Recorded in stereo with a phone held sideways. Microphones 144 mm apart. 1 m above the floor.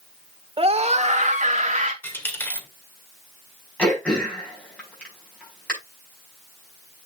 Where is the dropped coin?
15° left (ahead or behind), 2.0 m.